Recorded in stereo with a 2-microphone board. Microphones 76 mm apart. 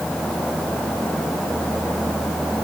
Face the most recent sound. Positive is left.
No sound to turn to.